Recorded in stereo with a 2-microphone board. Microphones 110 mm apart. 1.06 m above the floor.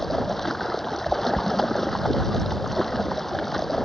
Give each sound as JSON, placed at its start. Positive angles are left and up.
{"t": 0.0, "sound": "running water", "side_deg": 0}